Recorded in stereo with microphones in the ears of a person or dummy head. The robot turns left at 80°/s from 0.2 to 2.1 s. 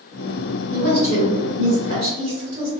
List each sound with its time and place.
0.7 s a woman speaking: 45° right (ahead or behind), 1.5 m; by 2.7 s 25° right (ahead or behind), 1.5 m